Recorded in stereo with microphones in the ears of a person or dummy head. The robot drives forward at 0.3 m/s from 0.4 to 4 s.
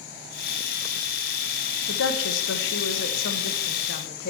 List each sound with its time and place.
1.9 s a woman speaking: 75° left (ahead or behind), 0.9 m; by 4.3 s 60° left (ahead or behind), 1.0 m